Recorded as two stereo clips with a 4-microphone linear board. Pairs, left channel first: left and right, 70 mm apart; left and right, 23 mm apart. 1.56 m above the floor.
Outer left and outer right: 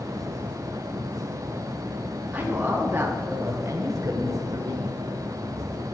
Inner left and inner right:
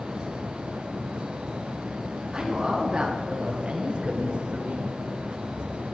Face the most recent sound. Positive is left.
turn(degrees=-85)